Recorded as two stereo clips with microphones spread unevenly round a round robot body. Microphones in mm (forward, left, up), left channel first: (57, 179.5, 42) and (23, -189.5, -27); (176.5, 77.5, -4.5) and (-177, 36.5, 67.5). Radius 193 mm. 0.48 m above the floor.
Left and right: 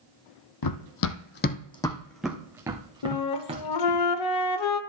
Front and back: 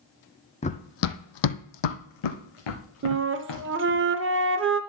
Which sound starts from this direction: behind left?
A flute, at 3.0 s.